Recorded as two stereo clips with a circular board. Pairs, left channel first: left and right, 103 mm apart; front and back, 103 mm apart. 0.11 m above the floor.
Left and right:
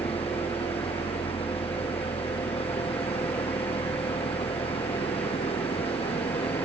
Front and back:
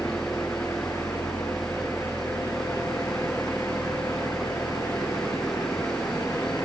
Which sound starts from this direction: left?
An engine running, at 0.0 s.